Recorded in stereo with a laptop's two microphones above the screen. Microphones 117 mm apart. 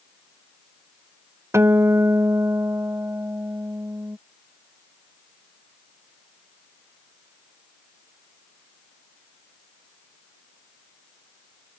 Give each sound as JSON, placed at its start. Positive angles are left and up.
{"t": 1.5, "sound": "a guitar", "side_deg": -20}